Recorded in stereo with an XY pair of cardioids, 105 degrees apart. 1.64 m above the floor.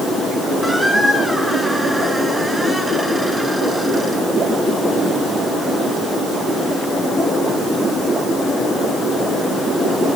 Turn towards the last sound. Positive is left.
turn(degrees=-5)